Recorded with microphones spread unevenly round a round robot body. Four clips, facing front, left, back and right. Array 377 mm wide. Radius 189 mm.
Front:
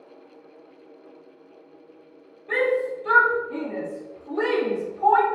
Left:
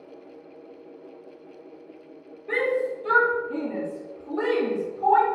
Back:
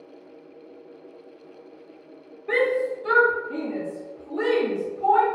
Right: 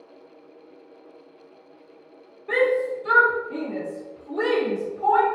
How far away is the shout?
About 1.6 m.